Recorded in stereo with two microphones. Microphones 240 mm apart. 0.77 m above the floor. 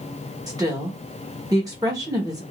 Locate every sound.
0.5 s a woman speaking: 15° right (ahead or behind), 0.8 m